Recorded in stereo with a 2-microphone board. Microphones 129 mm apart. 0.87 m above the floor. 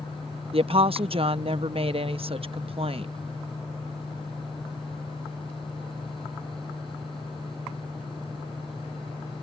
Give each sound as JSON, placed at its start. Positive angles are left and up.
{"t": 0.5, "sound": "a woman speaking", "side_deg": -50}